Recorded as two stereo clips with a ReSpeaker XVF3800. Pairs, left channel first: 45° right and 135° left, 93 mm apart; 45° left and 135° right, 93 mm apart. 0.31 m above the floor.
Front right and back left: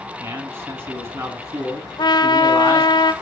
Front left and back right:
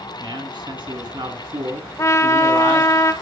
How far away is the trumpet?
About 0.8 m.